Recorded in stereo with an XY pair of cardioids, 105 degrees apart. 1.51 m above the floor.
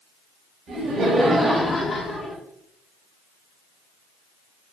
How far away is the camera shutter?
I don't hear a camera shutter.